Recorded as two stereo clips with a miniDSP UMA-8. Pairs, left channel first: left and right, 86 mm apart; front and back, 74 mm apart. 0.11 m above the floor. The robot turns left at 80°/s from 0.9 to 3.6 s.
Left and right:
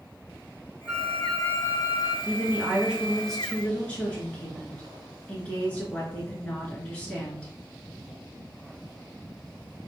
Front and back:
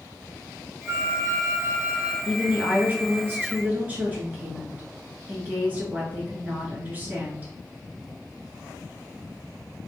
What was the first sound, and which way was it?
A flute, 155° right.